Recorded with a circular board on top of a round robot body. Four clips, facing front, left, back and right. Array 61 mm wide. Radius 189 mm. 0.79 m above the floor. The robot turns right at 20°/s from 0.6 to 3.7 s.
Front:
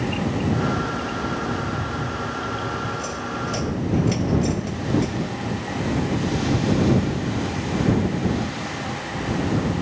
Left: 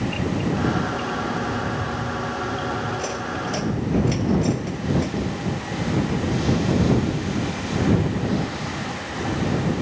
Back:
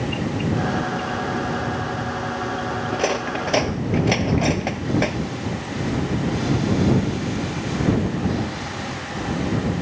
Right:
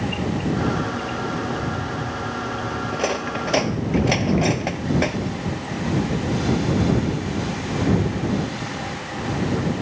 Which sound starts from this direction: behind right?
Cutlery clinking, at 2.9 s.